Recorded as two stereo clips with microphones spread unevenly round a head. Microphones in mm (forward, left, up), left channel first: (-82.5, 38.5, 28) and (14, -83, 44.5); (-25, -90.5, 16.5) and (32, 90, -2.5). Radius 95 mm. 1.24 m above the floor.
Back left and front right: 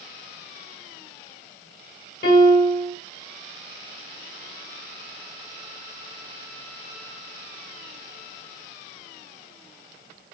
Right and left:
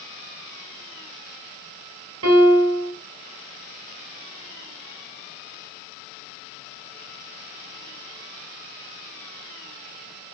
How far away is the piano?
About 5 m.